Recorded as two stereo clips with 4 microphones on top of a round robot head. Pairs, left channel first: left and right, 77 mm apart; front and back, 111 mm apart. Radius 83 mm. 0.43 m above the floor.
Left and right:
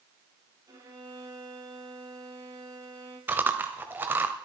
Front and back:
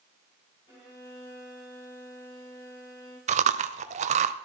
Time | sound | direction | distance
0.7 | a violin | 55° right | 7 m
3.3 | chewing | 160° right | 0.8 m